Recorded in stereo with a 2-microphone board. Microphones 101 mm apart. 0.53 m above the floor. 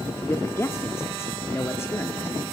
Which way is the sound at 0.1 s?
25° left (ahead or behind).